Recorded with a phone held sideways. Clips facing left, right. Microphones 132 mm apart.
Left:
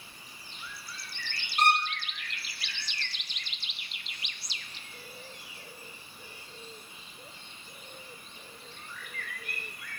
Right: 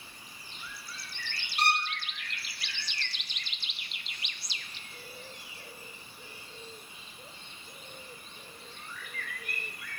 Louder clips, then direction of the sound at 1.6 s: Left 4 dB; 50° left (ahead or behind).